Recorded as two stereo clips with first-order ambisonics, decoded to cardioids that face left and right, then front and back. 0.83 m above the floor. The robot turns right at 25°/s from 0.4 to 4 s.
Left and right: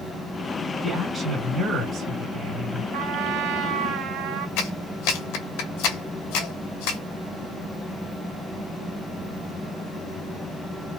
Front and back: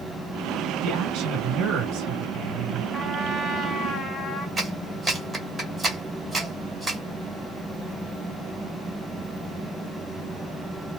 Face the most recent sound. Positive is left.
turn(degrees=100)